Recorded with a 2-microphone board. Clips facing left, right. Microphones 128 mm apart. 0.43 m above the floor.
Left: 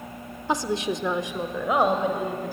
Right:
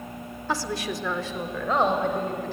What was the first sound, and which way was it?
A woman speaking, 20° left (ahead or behind).